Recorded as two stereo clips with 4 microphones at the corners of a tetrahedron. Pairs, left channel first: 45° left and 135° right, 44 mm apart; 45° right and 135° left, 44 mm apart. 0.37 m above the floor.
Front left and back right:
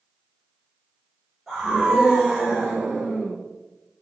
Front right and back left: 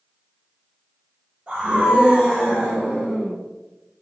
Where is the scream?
135° left, 1.5 m; by 3.4 s 105° right, 1.6 m.